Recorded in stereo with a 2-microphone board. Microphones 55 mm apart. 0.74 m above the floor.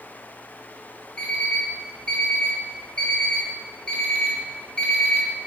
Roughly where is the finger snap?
I don't hear a finger snap.